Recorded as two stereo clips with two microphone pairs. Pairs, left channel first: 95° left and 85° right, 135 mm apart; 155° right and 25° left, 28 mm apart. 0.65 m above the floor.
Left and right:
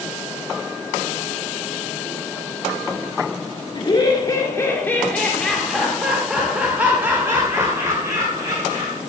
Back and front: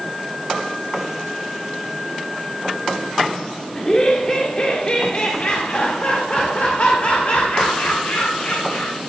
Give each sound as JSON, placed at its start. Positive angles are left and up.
{"t": 3.8, "sound": "laughter", "azimuth_deg": 140, "distance_m": 1.8}